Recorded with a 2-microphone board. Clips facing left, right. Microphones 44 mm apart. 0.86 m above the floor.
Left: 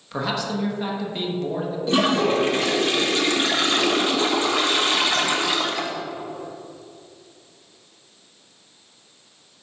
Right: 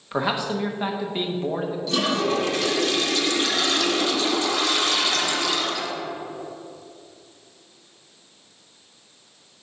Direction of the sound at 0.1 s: 20° right (ahead or behind).